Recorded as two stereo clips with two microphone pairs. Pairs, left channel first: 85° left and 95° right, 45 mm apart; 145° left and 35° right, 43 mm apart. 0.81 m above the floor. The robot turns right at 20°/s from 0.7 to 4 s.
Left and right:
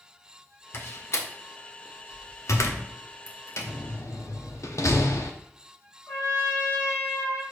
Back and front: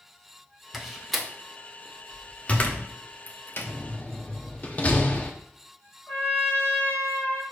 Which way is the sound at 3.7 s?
85° left.